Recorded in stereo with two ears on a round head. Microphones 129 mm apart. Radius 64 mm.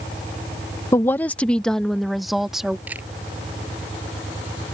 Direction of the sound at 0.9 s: 20° left (ahead or behind).